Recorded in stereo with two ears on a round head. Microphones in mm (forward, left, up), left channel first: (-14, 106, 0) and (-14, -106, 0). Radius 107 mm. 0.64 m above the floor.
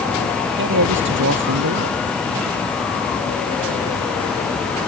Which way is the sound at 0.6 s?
55° right (ahead or behind).